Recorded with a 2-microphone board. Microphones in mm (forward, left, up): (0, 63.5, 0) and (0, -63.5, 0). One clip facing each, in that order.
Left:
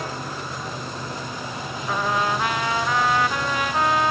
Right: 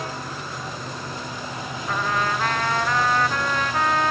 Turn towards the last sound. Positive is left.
turn(degrees=10)  # may be behind; listen again after turning